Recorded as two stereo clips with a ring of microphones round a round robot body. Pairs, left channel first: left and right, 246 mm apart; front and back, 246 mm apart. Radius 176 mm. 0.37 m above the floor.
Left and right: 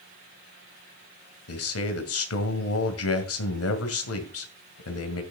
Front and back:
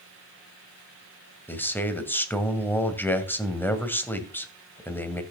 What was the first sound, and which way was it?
A man speaking, 80° left.